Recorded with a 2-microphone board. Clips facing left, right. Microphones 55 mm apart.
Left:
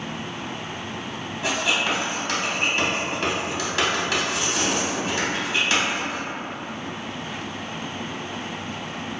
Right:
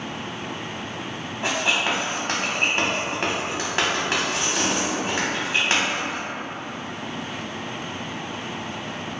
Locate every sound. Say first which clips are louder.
1.4 s writing: even; 35° right (ahead or behind), 1.0 m